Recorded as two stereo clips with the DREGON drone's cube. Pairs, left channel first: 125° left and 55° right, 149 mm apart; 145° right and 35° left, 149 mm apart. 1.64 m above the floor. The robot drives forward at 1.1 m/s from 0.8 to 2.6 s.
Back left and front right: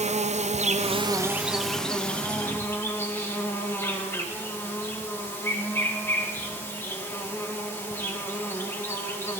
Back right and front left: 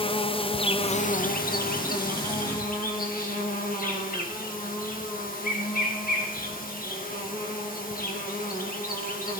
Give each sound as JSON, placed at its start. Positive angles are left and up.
{"t": 0.0, "sound": "an insect", "azimuth_deg": -95, "distance_m": 0.7}